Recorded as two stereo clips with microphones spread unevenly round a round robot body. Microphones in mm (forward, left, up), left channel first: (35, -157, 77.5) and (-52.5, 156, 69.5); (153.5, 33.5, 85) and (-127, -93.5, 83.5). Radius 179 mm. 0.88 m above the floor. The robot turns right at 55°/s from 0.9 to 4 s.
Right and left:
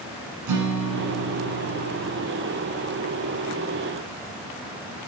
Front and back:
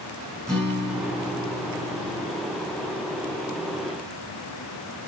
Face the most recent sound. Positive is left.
turn(degrees=-80)